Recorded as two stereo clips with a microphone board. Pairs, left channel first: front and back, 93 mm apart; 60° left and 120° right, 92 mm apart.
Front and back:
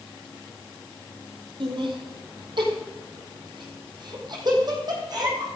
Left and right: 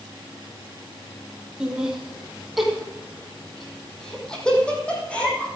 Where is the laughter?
160° left, 3.5 m; by 5.5 s 135° left, 5 m.